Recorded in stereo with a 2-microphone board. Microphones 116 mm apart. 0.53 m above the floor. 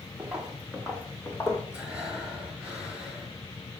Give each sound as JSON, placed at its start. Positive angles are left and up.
{"t": 0.2, "sound": "footsteps", "side_deg": -5, "distance_m": 2.5}
{"t": 1.7, "sound": "breathing", "side_deg": -10, "distance_m": 3.5}